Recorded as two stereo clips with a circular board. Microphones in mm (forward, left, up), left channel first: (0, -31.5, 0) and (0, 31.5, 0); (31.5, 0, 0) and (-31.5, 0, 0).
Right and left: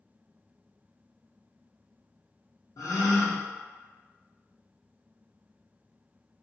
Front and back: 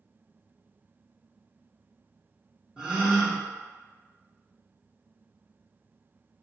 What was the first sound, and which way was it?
A gasp, 105° right.